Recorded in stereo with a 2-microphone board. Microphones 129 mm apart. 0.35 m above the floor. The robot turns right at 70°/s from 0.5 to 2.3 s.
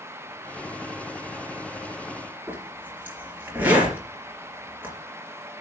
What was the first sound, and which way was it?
A zipper, 15° right (ahead or behind).